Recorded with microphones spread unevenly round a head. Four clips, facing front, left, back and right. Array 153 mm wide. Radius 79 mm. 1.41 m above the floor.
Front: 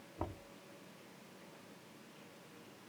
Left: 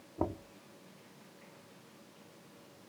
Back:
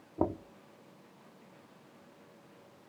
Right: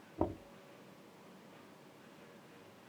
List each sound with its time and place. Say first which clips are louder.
0.2 s knocking: left 1 dB, back 13 dB; straight behind